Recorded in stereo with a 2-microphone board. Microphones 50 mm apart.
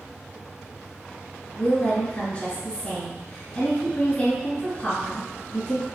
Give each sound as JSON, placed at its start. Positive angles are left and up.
{"t": 1.6, "sound": "a woman speaking", "side_deg": 25, "distance_m": 1.4}